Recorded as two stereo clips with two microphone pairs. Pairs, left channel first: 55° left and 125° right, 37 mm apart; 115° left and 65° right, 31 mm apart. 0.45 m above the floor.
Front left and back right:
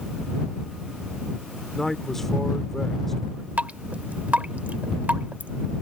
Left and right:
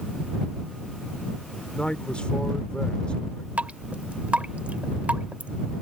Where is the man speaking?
130° left.